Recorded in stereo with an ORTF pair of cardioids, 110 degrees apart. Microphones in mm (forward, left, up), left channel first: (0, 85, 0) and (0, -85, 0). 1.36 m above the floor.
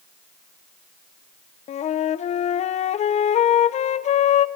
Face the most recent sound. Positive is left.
turn(degrees=45)